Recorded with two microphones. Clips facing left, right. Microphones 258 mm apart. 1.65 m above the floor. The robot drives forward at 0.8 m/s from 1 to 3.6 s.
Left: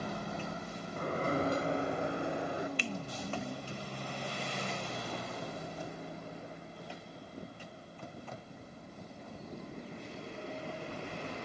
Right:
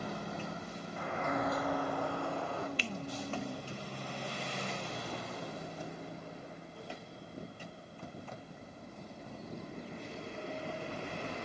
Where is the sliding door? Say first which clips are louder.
Left 3 dB; 45° left (ahead or behind), 0.8 m; by 2.7 s 15° left (ahead or behind), 1.9 m.